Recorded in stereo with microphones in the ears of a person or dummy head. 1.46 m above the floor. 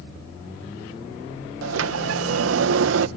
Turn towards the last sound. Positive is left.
turn(degrees=-85)